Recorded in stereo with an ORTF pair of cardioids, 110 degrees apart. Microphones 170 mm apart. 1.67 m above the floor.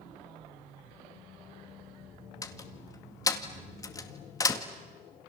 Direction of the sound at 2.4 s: 20° left.